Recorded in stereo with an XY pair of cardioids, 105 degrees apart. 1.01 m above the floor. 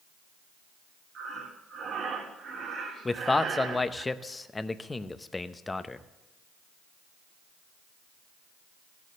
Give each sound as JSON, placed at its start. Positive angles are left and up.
{"t": 1.1, "sound": "breathing", "azimuth_deg": -55, "distance_m": 2.0}
{"t": 3.0, "sound": "a man speaking", "azimuth_deg": 20, "distance_m": 0.7}